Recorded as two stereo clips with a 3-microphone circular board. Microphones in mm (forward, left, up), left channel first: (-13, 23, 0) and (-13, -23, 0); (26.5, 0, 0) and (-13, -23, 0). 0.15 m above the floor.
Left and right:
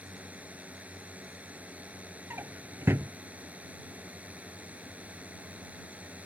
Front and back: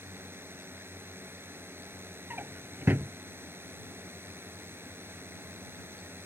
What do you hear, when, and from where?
0.0 s a drone: 145° right
2.3 s a drawer: 115° right